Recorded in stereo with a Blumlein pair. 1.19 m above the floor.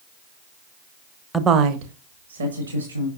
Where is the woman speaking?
5° right, 0.7 m; by 3.1 s 75° right, 3 m.